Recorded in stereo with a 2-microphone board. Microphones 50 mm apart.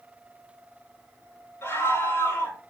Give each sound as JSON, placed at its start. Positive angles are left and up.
{"t": 1.6, "sound": "a scream", "side_deg": 45, "distance_m": 4.0}